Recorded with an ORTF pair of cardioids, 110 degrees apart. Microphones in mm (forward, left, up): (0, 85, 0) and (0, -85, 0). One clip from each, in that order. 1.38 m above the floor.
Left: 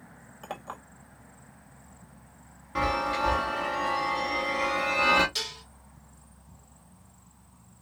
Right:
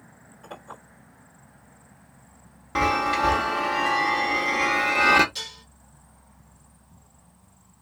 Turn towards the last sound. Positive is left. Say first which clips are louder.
# left 2 dB
turn(degrees=35)